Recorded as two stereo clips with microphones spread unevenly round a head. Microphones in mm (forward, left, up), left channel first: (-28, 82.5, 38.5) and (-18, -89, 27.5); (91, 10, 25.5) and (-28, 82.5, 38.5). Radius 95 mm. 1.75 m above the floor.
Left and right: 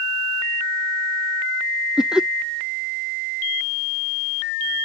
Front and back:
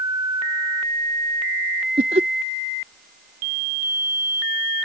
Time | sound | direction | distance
2.0 | laughter | 175° right | ?